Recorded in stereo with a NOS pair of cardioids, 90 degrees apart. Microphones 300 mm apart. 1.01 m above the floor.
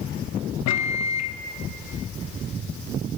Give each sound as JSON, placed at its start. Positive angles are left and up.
{"t": 0.7, "sound": "a microwave", "azimuth_deg": 65, "distance_m": 0.7}